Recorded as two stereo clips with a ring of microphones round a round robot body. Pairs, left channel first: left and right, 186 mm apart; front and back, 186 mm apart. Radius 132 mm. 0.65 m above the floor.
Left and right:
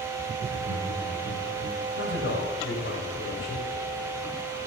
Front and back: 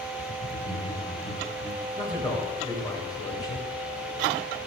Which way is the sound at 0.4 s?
50° right.